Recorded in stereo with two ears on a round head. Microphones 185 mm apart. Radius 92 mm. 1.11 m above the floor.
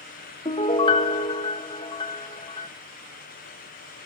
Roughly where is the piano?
Left.